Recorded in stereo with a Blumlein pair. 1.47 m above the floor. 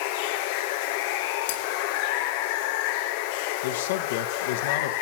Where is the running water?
50° left, 1.1 m.